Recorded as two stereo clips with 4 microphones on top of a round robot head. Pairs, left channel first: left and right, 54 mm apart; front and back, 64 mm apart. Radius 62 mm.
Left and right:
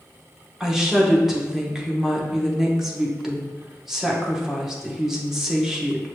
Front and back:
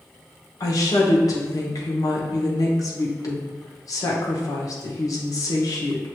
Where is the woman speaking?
10° right, 1.2 m.